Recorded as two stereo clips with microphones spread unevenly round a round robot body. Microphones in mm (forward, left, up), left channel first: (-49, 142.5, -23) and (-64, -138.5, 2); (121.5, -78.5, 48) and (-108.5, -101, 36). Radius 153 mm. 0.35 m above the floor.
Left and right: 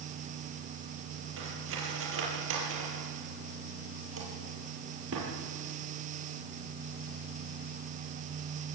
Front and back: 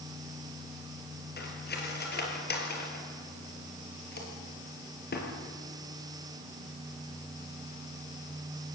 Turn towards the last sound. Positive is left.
turn(degrees=-40)